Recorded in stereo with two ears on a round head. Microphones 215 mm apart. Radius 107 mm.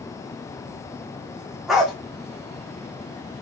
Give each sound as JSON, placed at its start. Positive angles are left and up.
{"t": 1.7, "sound": "a dog barking", "side_deg": 0, "distance_m": 1.8}